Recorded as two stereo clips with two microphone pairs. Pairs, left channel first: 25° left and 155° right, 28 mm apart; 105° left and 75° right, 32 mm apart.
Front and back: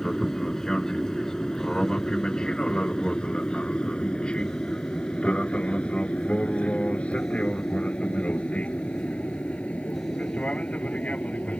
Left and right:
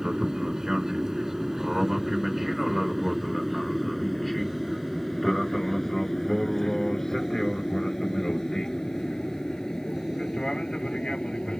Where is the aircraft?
25° right; by 11.6 s 45° left.